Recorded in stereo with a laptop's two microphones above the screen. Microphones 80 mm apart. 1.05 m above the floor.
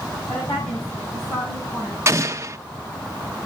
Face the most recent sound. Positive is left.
turn(degrees=-35)  # may be behind; listen again after turning